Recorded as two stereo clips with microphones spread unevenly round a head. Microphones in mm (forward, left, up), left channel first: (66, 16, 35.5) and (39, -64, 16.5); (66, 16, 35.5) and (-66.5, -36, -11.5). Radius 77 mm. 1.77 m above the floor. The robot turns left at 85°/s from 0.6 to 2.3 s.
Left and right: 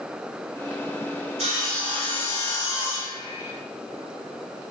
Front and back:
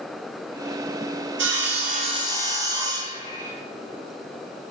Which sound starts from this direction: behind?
Sawing, at 1.4 s.